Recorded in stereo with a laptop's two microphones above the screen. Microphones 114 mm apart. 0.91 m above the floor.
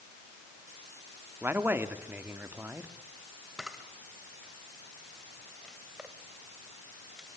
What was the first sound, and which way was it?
A man speaking, 20° right (ahead or behind).